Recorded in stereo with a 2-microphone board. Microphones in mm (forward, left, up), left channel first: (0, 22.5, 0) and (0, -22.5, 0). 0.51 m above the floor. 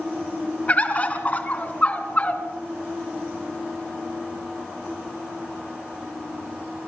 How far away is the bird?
About 2.5 m.